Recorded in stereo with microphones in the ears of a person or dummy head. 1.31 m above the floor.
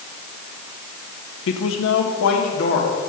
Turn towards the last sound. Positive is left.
turn(degrees=70)  # may be behind; listen again after turning